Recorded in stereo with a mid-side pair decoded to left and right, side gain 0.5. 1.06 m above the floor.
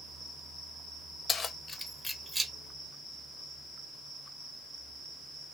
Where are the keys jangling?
50° left, 0.6 m; by 2.5 s 20° right, 0.6 m.